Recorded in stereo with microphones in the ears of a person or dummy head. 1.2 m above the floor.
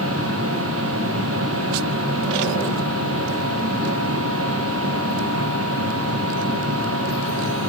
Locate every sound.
0.0 s a machine running: 70° right (ahead or behind), 1.0 m